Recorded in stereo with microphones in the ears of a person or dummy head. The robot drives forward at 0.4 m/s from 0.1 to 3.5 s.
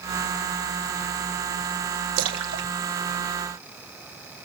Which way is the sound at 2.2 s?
70° right (ahead or behind).